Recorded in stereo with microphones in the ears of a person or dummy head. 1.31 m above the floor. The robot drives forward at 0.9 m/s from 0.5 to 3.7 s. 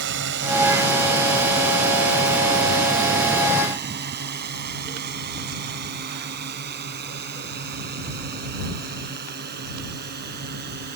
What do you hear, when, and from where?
0.0 s a drone: 60° right (ahead or behind); by 11.0 s 50° right (ahead or behind)